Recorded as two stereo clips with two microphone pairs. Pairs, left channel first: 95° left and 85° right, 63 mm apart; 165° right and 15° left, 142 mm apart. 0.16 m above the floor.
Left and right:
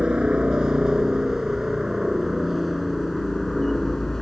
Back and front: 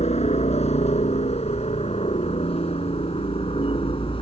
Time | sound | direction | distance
0.0 | a helicopter | 155° right | ?